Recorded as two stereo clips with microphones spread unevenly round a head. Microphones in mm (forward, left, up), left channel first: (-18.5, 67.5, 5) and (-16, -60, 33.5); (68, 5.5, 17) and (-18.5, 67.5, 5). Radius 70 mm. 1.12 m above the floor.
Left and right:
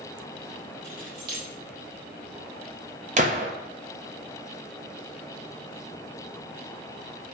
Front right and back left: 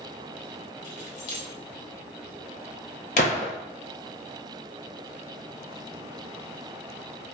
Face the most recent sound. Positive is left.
turn(degrees=-45)